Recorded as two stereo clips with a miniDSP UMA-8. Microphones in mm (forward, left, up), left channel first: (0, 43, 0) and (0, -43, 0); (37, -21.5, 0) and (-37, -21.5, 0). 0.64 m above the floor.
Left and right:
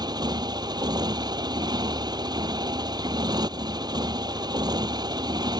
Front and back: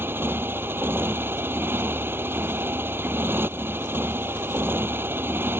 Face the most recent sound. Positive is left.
turn(degrees=-125)